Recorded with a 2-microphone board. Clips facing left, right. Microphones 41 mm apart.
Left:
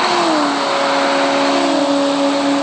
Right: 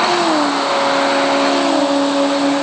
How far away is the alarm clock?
I don't hear an alarm clock.